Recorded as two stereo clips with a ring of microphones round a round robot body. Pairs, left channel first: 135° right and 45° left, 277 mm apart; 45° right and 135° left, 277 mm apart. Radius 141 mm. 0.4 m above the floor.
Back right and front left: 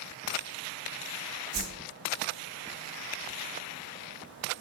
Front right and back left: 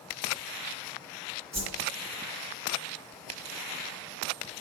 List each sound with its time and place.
1.5 s a whoosh: 65° left, 2 m